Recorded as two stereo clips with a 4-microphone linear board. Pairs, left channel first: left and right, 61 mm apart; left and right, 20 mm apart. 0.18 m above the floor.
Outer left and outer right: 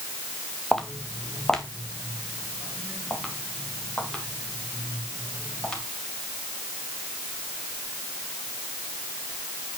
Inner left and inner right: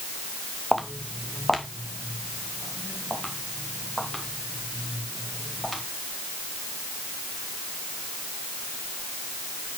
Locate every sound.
0.7 s footsteps: 10° left (ahead or behind), 1.5 m